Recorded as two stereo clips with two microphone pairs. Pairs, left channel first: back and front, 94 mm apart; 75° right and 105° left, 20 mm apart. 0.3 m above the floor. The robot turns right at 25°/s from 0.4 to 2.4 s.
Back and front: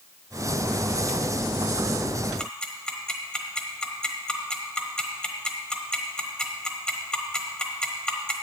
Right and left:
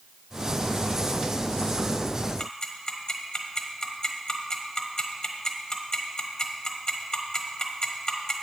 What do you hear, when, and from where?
2.4 s ticking: 105° right, 1.1 m